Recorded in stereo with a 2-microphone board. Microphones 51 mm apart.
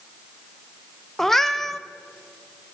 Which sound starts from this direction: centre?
A cat meowing, at 1.2 s.